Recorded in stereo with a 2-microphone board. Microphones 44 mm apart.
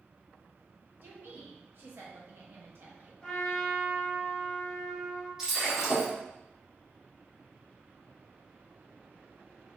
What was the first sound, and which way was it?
A woman speaking, 60° right (ahead or behind).